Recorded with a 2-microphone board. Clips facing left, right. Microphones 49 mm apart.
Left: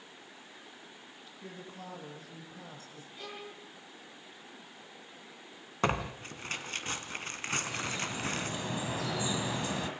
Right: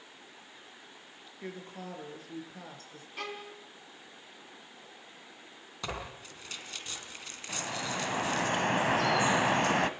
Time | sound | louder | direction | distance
1.4 | a woman speaking | right 4 dB | 55° right (ahead or behind) | 7 m
3.2 | a violin | right 5 dB | 70° right (ahead or behind) | 4 m
5.8 | tearing paper | left 8 dB | 45° left (ahead or behind) | 2.5 m
7.5 | dripping | right 1 dB | 55° right (ahead or behind) | 1.6 m